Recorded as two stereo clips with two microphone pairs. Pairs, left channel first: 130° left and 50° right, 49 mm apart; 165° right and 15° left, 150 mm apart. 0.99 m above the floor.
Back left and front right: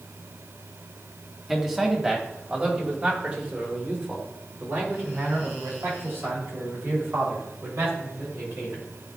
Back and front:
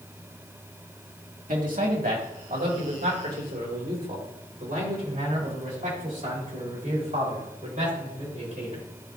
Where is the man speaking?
30° left, 1.8 m; by 8.8 s 20° right, 5 m.